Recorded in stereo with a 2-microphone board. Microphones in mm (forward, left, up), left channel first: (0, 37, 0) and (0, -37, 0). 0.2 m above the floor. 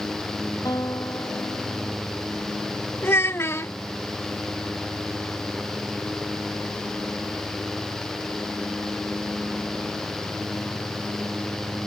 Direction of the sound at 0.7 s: 50° left (ahead or behind).